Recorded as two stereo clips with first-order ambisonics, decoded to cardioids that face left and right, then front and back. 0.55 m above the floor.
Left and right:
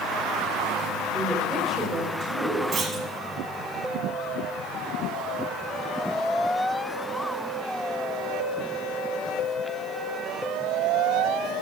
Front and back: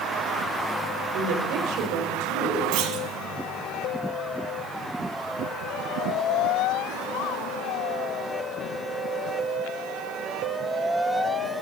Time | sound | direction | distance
1.1 | a woman speaking | 170° left | 1.8 m
2.7 | a clunk | 150° right | 1.2 m